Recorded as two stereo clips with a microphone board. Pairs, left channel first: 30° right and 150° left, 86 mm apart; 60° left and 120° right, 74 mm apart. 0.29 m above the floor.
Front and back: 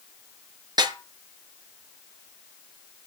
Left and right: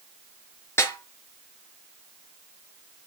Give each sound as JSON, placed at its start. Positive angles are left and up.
{"t": 0.8, "sound": "a snare drum", "azimuth_deg": 115, "distance_m": 4.5}